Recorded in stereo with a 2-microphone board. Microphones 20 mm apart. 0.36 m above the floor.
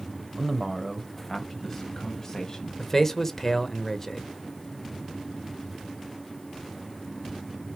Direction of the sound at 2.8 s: 20° left (ahead or behind).